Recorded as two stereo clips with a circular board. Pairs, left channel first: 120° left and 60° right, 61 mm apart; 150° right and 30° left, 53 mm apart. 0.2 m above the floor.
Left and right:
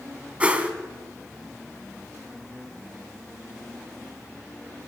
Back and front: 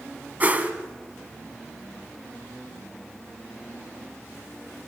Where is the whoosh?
5° right, 1.8 m.